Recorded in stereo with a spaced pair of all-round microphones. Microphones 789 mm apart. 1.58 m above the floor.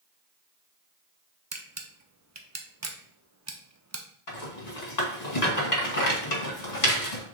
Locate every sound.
1.5 s a camera shutter: 25° right (ahead or behind), 0.5 m
4.3 s a rattle: 55° left (ahead or behind), 1.3 m